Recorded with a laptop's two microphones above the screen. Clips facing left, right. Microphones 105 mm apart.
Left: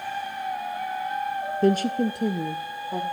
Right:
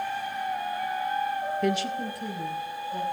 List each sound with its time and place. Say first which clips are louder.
1.6 s a woman speaking: left 10 dB; 30° left (ahead or behind), 0.7 m; by 3.0 s 75° left (ahead or behind), 1.9 m